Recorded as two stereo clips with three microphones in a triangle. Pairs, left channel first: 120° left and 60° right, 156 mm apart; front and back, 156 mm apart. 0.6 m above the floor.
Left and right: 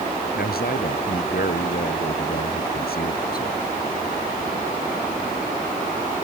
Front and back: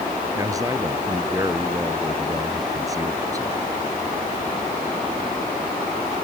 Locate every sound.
0.3 s a man speaking: 115° left